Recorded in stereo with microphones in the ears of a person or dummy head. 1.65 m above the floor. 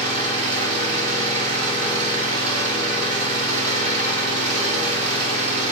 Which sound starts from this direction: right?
An engine running, at 0.0 s.